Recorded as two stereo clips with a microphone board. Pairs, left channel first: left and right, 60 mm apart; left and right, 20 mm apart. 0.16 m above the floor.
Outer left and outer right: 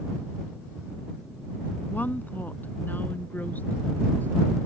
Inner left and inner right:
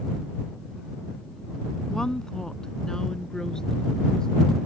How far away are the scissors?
No scissors in this recording.